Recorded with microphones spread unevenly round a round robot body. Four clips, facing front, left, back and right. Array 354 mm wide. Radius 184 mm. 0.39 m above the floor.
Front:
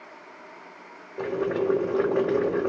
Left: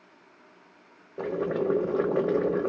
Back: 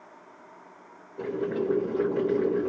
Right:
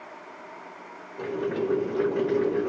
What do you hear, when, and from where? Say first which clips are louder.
1.2 s boiling: even, front 3 dB; 35° left, 1.3 m